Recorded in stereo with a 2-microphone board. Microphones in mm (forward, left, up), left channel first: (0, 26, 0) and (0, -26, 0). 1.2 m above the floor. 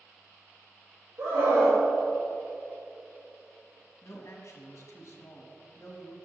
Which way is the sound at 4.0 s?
60° left (ahead or behind).